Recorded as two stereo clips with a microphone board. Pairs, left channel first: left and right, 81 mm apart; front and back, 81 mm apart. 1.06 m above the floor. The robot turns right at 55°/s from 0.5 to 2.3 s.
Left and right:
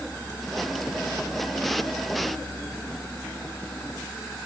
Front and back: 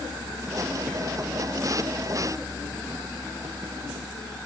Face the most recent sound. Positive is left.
No sound to turn to.